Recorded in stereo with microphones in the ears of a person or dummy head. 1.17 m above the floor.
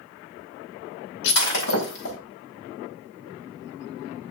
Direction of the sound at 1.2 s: 85° left.